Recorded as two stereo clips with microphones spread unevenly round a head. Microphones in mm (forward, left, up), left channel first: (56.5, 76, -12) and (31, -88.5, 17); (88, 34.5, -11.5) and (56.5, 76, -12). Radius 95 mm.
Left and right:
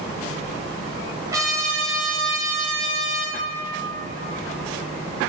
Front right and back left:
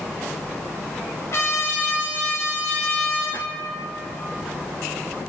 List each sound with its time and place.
1.3 s a trumpet: 40° right, 0.6 m